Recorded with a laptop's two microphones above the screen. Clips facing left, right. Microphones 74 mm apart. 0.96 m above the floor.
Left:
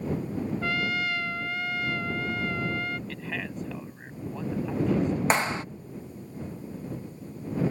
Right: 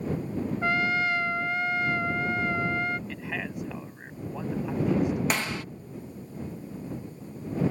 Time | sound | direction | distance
0.6 | a trumpet | 25° right (ahead or behind) | ?
3.1 | a man speaking | 10° right (ahead or behind) | ?
5.3 | a clap | 30° left (ahead or behind) | ?